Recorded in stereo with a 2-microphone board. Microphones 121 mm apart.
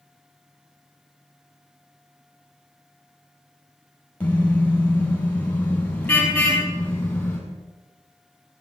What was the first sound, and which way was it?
A car horn, 10° left (ahead or behind).